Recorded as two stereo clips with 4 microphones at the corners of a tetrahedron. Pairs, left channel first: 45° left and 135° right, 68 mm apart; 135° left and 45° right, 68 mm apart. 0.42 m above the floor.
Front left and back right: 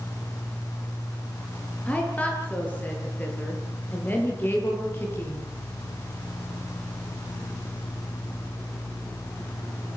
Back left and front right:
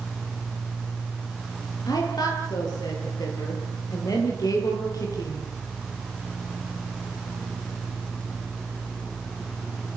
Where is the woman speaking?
115° left, 8.5 m; by 5.5 s 100° left, 9.5 m.